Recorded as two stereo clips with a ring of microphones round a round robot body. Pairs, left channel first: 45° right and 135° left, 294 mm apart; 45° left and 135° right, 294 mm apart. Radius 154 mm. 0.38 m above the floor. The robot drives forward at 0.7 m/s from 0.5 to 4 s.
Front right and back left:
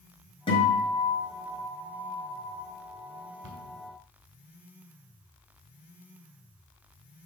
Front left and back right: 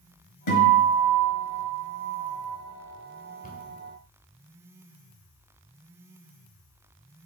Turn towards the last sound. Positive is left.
turn(degrees=115)